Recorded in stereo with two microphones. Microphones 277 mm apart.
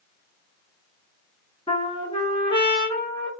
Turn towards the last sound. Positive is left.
turn(degrees=20)  # may be behind; listen again after turning